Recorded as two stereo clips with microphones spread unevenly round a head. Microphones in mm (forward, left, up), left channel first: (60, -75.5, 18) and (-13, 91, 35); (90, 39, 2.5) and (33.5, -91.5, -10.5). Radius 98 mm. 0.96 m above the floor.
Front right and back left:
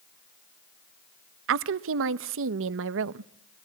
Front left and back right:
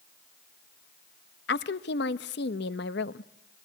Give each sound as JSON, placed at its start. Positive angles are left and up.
{"t": 1.5, "sound": "a woman speaking", "azimuth_deg": 100, "distance_m": 0.6}